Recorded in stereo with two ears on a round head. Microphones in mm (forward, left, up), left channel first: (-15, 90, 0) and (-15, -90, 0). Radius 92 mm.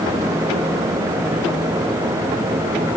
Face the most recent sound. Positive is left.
No sound to turn to.